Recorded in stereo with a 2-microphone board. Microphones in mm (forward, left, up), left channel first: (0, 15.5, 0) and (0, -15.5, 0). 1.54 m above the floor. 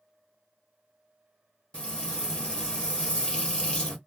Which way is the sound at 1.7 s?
30° left (ahead or behind).